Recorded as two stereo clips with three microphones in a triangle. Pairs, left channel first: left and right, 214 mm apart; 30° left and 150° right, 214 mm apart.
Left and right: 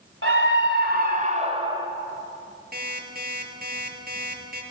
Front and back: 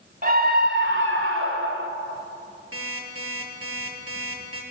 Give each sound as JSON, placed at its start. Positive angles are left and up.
{"t": 0.2, "sound": "a scream", "azimuth_deg": -105, "distance_m": 2.0}
{"t": 2.7, "sound": "an alarm clock", "azimuth_deg": -140, "distance_m": 5.0}